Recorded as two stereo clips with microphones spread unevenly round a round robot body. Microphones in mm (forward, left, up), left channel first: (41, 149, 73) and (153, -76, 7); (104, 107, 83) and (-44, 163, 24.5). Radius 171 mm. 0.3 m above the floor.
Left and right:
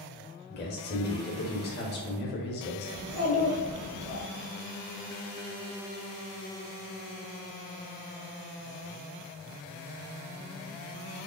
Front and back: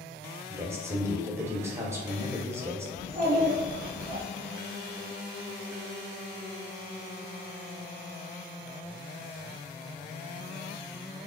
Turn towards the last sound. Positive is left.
turn(degrees=-135)